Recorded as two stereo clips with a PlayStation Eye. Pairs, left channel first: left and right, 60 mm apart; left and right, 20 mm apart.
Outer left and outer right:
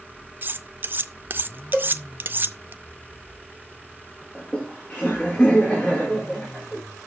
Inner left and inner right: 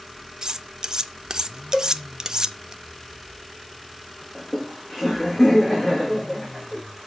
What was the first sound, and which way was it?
Cutlery clinking, 35° right (ahead or behind).